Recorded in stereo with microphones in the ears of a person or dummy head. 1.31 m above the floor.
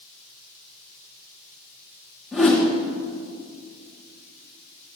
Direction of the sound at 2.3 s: Centre (ahead or behind).